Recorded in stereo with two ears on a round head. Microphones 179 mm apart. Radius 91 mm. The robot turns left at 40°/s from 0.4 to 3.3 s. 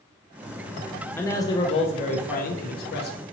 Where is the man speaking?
165° left, 0.7 m; by 3.2 s 85° left, 0.7 m.